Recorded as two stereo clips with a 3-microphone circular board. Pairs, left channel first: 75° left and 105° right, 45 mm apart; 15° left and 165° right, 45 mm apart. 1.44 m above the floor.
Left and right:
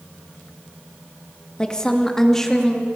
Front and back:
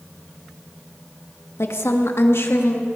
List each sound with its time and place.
1.6 s a woman speaking: 5° left, 2 m; by 2.9 s 10° right, 3 m